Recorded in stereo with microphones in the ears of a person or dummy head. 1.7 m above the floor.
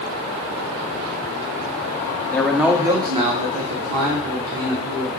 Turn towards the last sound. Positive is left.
turn(degrees=-60)  # may be behind; listen again after turning